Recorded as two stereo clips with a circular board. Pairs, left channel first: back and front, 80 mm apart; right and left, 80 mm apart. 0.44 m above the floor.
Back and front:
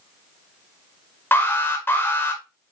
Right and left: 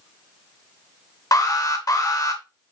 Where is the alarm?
120° right, 0.7 m.